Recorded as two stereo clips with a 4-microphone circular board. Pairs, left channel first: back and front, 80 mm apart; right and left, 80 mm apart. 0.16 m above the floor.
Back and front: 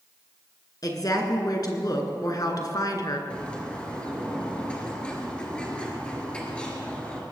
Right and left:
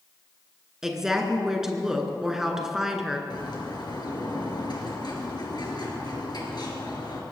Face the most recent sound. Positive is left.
turn(degrees=-105)